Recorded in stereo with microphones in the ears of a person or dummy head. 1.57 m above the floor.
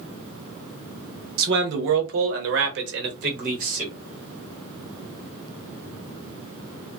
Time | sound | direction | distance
1.4 | a man speaking | 55° right (ahead or behind) | 1.0 m